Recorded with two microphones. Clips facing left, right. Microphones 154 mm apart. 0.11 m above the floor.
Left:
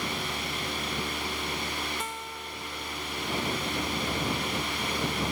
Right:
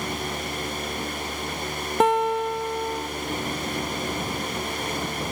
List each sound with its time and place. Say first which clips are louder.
2.0 s a guitar: right 18 dB; 65° right (ahead or behind)